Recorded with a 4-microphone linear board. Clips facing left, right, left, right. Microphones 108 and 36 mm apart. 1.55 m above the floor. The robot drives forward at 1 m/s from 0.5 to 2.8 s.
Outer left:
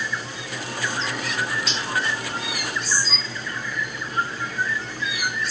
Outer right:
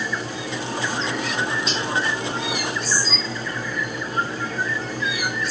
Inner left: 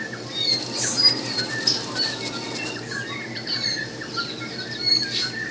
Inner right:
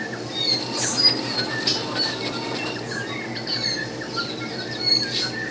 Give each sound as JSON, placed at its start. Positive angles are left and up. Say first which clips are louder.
{"t": 1.7, "sound": "cutlery clinking", "louder": "outer right 4 dB, inner right 2 dB", "side_deg": -40, "distance_m": 3.0}